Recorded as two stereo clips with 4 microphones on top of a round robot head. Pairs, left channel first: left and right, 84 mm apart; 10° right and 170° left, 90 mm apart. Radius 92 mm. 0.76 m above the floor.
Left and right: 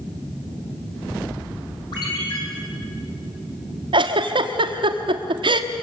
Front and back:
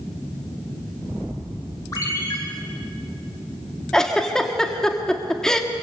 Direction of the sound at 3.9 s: 90° right.